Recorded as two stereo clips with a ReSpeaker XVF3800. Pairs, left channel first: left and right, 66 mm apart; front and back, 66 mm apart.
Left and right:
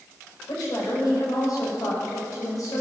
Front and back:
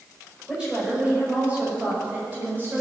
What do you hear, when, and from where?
0.5 s a woman speaking: 105° left, 5.5 m; by 2.8 s 120° left, 7 m